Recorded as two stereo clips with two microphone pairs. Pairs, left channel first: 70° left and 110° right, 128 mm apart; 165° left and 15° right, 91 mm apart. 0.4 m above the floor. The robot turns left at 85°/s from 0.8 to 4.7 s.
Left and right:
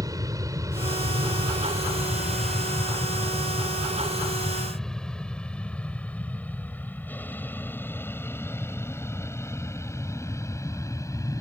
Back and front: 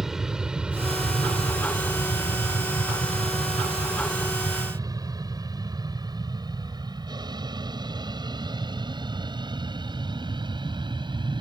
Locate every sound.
0.0 s an aircraft: 95° right; by 11.4 s 5° left